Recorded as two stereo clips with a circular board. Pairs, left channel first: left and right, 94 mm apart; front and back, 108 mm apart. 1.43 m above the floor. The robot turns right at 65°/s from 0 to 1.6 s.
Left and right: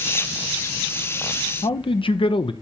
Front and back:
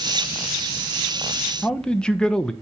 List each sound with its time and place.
1.6 s a man speaking: 80° left, 0.8 m